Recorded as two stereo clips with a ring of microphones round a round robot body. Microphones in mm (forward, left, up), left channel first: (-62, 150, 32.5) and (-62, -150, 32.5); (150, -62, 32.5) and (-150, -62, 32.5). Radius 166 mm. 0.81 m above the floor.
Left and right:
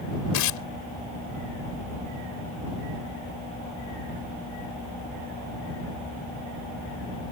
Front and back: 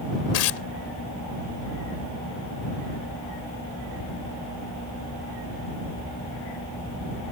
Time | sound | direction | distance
0.3 | tearing paper | 50° left | ?